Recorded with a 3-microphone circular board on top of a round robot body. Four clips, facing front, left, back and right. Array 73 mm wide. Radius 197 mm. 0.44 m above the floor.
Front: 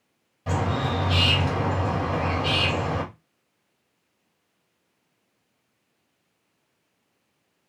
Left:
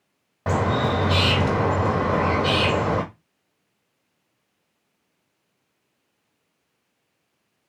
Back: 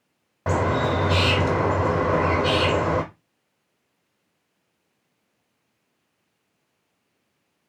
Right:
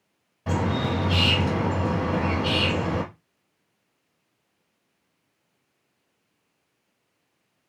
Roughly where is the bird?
Behind left.